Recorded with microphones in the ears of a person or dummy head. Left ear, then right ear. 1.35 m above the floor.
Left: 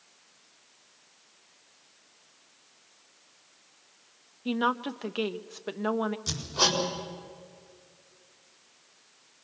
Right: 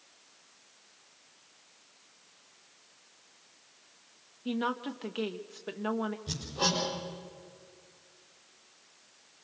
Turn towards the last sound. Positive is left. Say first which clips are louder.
# left 5 dB
turn(degrees=60)  # may be behind; listen again after turning